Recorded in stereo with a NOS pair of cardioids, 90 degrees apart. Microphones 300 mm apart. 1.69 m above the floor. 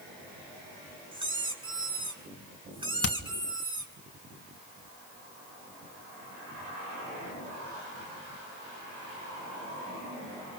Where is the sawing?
I don't hear sawing.